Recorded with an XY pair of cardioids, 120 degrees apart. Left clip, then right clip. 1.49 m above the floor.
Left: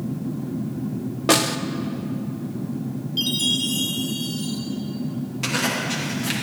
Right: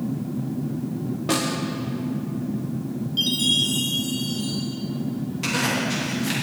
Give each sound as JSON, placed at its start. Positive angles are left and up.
{"t": 1.3, "sound": "a snare drum", "azimuth_deg": 50, "distance_m": 0.7}
{"t": 3.2, "sound": "a chime", "azimuth_deg": 15, "distance_m": 2.5}
{"t": 5.4, "sound": "a zipper", "azimuth_deg": 20, "distance_m": 3.0}